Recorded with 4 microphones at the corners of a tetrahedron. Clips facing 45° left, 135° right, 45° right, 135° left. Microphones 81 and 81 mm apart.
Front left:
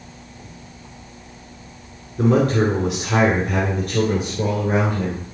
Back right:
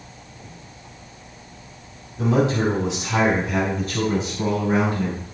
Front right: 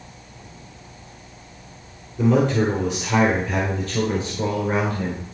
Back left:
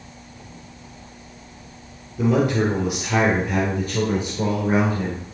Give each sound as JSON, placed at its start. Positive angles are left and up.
{"t": 2.2, "sound": "a man speaking", "azimuth_deg": 50, "distance_m": 2.5}